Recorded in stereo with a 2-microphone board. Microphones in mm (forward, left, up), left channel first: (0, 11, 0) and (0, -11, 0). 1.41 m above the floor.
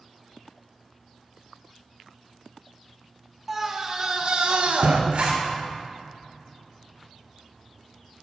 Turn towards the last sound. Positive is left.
turn(degrees=-60)  # may be behind; listen again after turning